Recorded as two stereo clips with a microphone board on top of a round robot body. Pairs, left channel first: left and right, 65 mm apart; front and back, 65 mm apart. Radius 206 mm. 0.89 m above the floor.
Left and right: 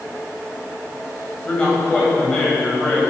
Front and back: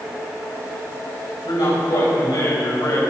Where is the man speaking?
15° left, 6 m.